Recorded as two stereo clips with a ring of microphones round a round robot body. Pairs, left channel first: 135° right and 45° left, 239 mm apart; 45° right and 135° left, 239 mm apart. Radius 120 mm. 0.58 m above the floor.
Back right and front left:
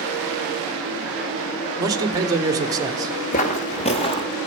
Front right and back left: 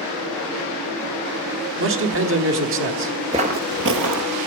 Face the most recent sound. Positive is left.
turn(degrees=155)